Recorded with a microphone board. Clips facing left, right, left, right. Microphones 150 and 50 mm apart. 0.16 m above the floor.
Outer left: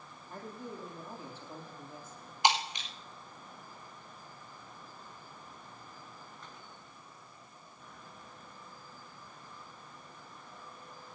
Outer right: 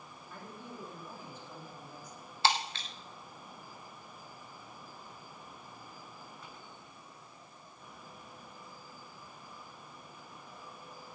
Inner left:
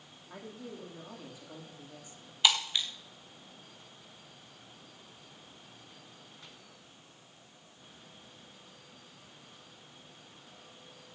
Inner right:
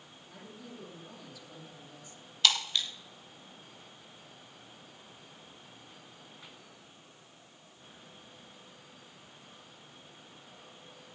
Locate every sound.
0.3 s a man speaking: 35° left (ahead or behind), 6 m; by 2.3 s 25° left (ahead or behind), 4 m
2.4 s breaking glass: 15° left (ahead or behind), 4 m